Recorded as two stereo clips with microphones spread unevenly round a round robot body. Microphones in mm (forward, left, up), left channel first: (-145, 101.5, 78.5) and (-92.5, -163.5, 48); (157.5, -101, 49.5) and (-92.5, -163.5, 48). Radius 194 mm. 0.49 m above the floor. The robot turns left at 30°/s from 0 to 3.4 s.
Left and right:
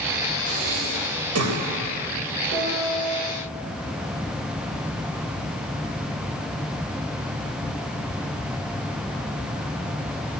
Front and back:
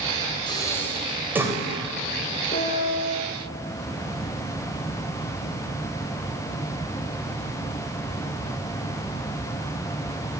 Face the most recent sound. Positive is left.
turn(degrees=-60)